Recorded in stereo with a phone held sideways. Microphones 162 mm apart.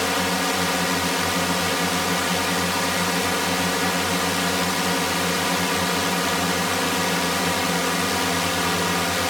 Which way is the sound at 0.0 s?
Centre (ahead or behind).